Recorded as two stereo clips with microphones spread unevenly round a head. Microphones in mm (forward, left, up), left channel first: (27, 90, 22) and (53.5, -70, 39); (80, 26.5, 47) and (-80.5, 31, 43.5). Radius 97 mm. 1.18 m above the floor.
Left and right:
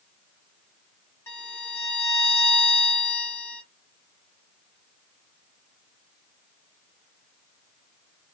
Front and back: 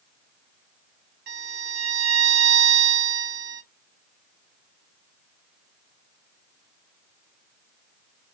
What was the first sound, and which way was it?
A violin, 175° left.